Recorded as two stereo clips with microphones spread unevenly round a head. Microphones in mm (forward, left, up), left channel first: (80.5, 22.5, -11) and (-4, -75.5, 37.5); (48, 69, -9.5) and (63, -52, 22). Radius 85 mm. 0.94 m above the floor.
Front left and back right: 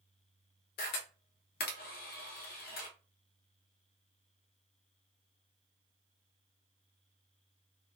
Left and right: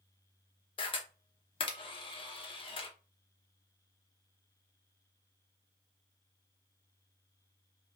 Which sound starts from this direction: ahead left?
A camera shutter, at 0.8 s.